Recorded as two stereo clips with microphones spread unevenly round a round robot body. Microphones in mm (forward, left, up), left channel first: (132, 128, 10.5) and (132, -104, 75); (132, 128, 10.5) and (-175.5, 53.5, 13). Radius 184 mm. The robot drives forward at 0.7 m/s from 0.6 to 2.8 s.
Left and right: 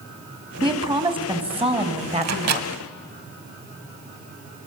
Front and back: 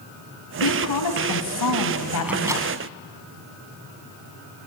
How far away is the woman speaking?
About 4 m.